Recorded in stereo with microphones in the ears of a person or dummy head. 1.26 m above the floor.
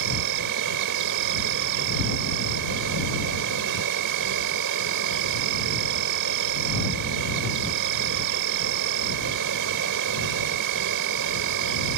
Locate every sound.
0.0 s an insect: 65° right (ahead or behind)